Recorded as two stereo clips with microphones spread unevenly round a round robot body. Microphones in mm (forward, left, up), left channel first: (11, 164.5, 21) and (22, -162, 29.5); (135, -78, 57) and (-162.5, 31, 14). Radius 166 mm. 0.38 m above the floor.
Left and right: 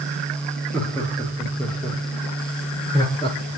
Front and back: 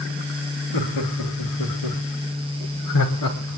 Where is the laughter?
5° left, 7 m; by 3.6 s 20° left, 6 m.